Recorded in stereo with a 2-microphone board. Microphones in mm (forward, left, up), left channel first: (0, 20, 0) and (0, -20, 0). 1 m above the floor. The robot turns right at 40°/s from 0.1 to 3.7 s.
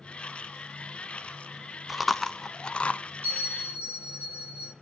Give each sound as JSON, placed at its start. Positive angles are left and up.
{"t": 1.9, "sound": "chewing", "side_deg": -5, "distance_m": 0.5}
{"t": 3.2, "sound": "a bell", "side_deg": -55, "distance_m": 6.5}